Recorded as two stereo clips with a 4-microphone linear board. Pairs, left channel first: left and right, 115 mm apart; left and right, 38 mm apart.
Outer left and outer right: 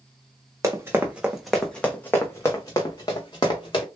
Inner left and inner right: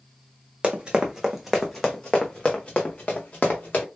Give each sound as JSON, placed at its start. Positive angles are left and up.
{"t": 0.6, "sound": "running footsteps", "side_deg": -25, "distance_m": 0.9}